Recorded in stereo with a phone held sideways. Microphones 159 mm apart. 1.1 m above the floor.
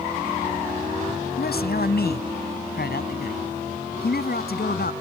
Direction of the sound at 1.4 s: 85° left.